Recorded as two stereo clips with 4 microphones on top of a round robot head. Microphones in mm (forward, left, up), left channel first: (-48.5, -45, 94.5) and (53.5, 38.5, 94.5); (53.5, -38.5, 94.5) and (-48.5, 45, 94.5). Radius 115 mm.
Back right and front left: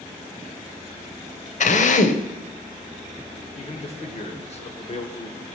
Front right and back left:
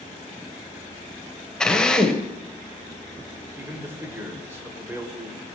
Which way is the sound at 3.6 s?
150° right.